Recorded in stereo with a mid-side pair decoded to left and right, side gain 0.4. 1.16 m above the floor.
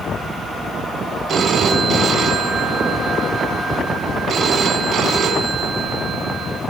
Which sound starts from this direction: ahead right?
A phone ringing, at 1.3 s.